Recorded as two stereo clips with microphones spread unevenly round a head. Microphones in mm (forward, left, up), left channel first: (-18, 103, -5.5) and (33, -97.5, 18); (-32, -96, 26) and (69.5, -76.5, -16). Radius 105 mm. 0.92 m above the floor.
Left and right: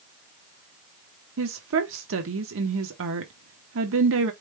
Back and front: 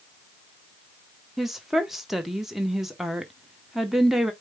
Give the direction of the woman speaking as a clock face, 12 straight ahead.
2 o'clock.